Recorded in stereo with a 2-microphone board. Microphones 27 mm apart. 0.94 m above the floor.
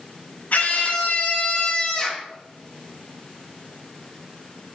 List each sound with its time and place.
0.5 s a scream: 65° left (ahead or behind), 1.2 m; by 2.3 s 20° left (ahead or behind), 1.0 m